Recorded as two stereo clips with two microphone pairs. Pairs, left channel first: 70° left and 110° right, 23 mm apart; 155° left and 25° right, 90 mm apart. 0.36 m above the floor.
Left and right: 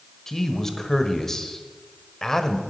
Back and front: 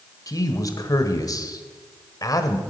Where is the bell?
I don't hear a bell.